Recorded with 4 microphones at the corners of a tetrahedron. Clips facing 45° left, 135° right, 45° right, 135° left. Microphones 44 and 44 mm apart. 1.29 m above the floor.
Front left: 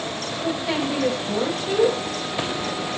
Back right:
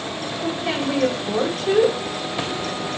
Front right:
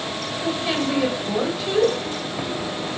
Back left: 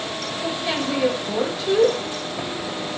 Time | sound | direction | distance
0.4 | a woman speaking | 125° right | 3.5 m